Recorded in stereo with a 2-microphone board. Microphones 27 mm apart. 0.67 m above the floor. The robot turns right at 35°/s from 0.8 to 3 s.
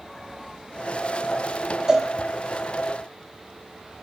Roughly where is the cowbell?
Right.